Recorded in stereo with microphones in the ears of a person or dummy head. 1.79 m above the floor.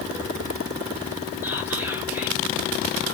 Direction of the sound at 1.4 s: 10° right (ahead or behind).